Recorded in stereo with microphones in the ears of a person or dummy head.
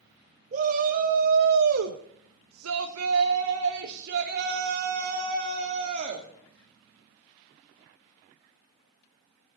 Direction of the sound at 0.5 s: 40° right (ahead or behind).